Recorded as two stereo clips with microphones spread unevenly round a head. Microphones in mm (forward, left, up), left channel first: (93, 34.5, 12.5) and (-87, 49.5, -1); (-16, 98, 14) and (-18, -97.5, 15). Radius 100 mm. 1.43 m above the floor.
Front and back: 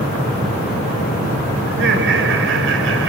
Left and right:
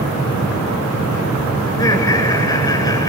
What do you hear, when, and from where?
1.7 s laughter: 165° left, 8 m